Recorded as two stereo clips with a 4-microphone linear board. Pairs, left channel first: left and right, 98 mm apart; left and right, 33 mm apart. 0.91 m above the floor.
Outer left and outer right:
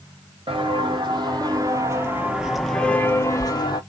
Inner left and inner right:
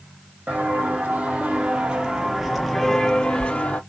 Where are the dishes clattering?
No dishes clattering in this recording.